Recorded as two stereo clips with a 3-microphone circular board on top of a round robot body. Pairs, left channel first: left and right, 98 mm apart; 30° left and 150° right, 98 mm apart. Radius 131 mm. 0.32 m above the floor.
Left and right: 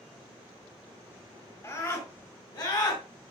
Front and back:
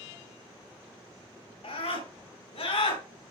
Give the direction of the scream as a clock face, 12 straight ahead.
11 o'clock.